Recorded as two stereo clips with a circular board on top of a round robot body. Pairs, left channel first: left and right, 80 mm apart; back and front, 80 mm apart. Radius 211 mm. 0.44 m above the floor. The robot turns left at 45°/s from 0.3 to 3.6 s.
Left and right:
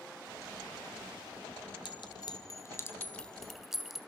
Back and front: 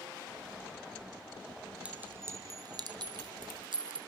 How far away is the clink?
About 2.5 m.